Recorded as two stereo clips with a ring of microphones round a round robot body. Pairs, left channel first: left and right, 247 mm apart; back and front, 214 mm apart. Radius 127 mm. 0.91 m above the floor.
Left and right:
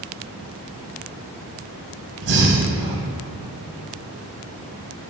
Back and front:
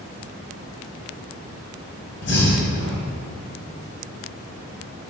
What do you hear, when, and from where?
2.2 s breathing: 135° right, 1.8 m